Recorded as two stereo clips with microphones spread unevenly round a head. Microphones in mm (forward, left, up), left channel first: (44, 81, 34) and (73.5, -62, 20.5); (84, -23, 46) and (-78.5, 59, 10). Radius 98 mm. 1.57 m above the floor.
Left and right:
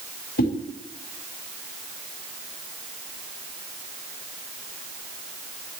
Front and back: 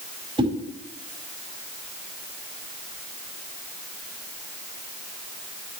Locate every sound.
0.4 s a whoosh: 85° left, 4 m